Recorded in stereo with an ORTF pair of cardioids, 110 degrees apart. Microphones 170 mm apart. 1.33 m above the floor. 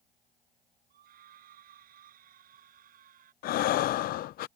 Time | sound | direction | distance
0.9 | a scream | 60° right | ?
3.4 | breathing | 65° left | ?